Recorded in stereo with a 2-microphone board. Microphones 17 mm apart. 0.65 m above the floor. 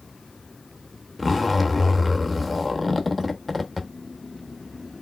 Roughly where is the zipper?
Centre.